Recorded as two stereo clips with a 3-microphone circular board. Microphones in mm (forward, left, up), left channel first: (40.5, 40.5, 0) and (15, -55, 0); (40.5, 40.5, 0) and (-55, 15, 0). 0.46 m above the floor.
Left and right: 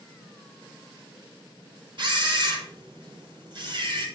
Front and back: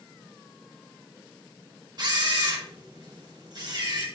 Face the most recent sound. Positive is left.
turn(degrees=-130)